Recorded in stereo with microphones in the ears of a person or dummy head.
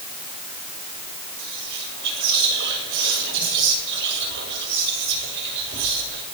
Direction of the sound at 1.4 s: 65° right (ahead or behind).